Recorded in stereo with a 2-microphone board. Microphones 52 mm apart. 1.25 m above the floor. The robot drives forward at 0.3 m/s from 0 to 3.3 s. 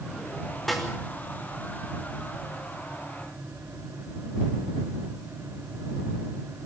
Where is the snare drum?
5° left (ahead or behind), 5 m.